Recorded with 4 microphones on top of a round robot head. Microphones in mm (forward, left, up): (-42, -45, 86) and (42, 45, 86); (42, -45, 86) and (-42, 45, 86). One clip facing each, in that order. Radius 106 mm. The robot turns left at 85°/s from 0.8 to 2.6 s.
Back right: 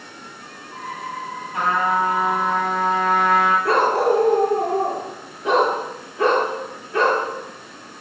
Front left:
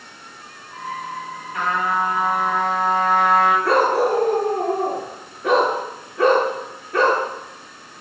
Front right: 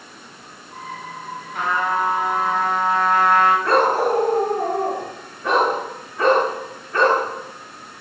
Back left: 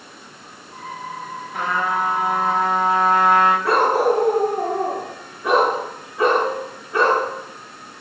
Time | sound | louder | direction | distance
1.5 | a trumpet | back right 2 dB, front right 1 dB | 160° left | 6.5 m
3.6 | a dog barking | even, back left 1 dB | 55° left | 5.5 m